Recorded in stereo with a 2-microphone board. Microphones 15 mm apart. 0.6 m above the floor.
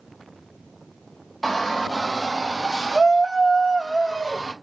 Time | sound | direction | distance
1.4 | a shout | 5° right (ahead or behind) | 1.0 m